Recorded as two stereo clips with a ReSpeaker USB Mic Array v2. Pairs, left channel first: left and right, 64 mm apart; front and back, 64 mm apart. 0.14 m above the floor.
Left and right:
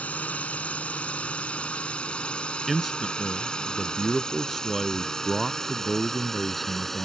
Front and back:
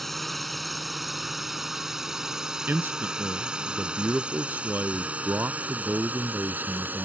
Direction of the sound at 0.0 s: 85° left.